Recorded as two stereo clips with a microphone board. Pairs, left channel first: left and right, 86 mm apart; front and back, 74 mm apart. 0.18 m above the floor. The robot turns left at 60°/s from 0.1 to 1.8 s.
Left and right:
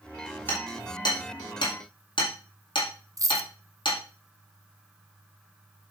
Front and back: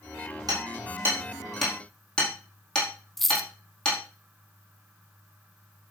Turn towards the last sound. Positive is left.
turn(degrees=-85)